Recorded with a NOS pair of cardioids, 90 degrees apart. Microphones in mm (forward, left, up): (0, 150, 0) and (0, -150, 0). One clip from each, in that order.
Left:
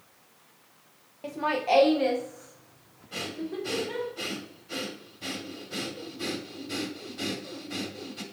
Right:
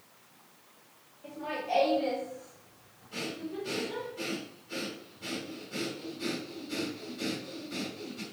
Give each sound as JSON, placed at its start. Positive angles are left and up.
{"t": 1.2, "sound": "laughter", "azimuth_deg": 70, "distance_m": 0.9}
{"t": 3.1, "sound": "breathing", "azimuth_deg": 45, "distance_m": 2.0}